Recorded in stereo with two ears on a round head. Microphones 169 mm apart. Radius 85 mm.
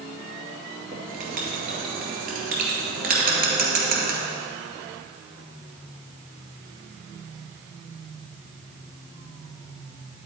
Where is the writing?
50° right (ahead or behind), 2 m.